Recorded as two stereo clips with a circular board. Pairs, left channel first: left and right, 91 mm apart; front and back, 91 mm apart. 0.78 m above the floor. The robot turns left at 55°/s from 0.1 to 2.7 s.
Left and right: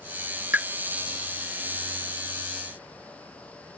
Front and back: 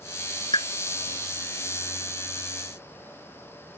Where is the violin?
No violin in this recording.